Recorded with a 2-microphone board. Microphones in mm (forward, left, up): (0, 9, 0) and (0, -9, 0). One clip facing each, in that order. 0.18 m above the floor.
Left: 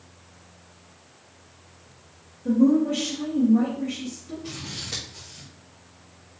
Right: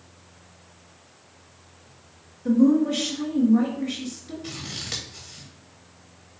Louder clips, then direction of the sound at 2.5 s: Right 1 dB; 55° right (ahead or behind).